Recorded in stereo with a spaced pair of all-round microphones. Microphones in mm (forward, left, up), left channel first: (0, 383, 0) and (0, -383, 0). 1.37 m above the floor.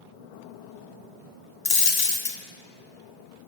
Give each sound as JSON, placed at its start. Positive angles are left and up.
{"t": 1.6, "sound": "a dropped coin", "side_deg": 30, "distance_m": 0.7}